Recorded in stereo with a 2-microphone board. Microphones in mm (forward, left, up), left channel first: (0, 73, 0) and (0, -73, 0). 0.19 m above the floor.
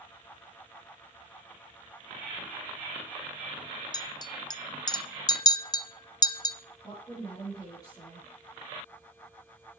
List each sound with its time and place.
3.9 s a clink: 30° left (ahead or behind), 0.6 m
6.8 s a woman speaking: 25° left (ahead or behind), 7 m